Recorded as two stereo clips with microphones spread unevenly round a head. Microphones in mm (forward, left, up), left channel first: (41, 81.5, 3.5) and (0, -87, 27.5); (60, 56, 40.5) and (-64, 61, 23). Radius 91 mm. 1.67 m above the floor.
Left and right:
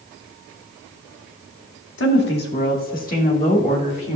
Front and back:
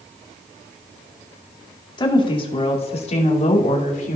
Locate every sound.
2.0 s a woman speaking: 50° left, 2 m; by 4.2 s 15° left, 3 m